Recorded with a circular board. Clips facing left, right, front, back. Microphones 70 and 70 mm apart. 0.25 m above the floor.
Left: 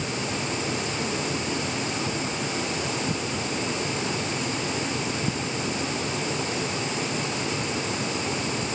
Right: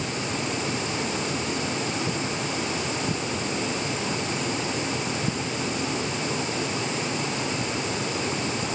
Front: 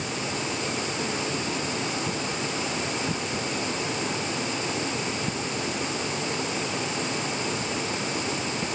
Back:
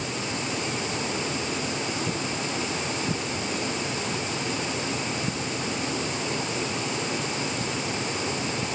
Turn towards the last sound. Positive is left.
No sound to turn to.